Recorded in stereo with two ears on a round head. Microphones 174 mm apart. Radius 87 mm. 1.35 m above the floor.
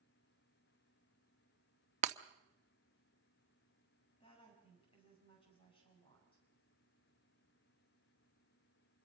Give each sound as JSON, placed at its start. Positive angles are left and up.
{"t": 2.0, "sound": "breaking glass", "side_deg": -35, "distance_m": 0.8}
{"t": 4.2, "sound": "a woman speaking", "side_deg": 30, "distance_m": 8.0}